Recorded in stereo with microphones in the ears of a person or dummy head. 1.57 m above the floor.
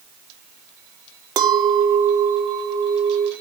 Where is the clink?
25° right (ahead or behind), 0.9 m.